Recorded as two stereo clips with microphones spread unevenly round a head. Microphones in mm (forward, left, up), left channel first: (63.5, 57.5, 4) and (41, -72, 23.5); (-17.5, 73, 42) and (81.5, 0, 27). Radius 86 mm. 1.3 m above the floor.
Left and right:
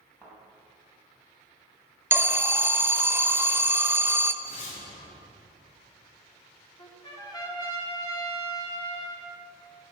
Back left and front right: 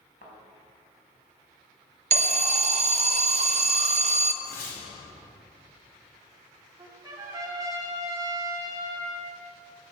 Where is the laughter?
I don't hear laughter.